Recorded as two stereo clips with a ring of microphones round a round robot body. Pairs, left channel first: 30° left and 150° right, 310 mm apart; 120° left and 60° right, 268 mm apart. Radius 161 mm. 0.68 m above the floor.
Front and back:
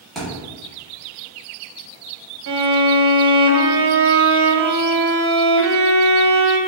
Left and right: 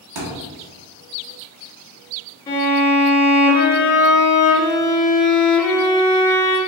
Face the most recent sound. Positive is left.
turn(degrees=-160)